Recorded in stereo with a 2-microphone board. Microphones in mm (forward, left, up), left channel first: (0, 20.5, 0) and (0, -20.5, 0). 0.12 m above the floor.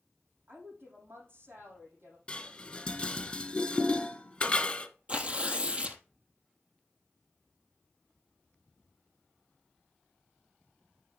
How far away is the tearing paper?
About 1.1 m.